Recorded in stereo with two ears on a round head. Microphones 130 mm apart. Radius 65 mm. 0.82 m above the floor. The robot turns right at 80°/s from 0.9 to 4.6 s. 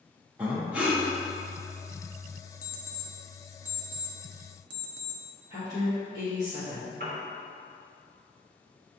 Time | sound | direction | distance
0.4 | breathing | 10° right (ahead or behind) | 1.0 m
2.6 | an alarm clock | 70° left (ahead or behind) | 0.7 m
5.5 | a woman speaking | 25° right (ahead or behind) | 1.2 m
7.0 | a piano | 70° right (ahead or behind) | 1.5 m